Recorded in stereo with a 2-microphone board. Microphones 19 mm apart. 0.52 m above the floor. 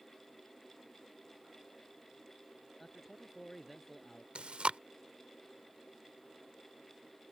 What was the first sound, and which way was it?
A man speaking, 5° left (ahead or behind).